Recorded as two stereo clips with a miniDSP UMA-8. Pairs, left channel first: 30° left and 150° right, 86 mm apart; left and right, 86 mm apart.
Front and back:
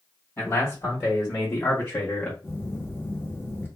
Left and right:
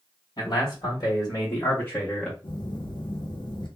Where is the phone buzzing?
90° left, 0.7 m.